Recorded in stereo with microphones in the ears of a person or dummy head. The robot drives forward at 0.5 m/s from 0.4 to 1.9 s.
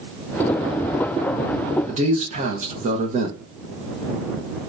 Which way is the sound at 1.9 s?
40° right (ahead or behind).